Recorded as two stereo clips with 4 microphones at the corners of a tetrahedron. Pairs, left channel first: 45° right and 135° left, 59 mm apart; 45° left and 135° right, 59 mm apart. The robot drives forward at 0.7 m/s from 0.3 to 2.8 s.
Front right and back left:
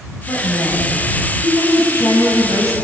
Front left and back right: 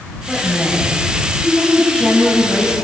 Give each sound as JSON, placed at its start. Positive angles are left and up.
{"t": 0.3, "sound": "a woman speaking", "azimuth_deg": -50, "distance_m": 9.0}